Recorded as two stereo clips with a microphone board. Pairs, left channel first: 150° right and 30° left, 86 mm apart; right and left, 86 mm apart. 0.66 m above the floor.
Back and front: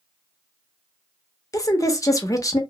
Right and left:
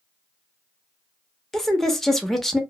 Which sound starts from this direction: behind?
A woman speaking, at 1.5 s.